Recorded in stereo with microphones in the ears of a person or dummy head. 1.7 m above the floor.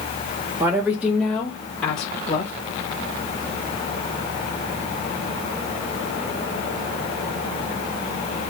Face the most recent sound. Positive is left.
turn(degrees=30)  # may be behind; listen again after turning